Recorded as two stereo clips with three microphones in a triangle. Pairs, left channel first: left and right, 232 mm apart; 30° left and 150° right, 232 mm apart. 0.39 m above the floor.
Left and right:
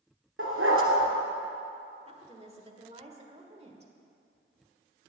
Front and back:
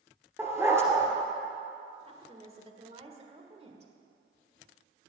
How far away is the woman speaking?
About 1.5 m.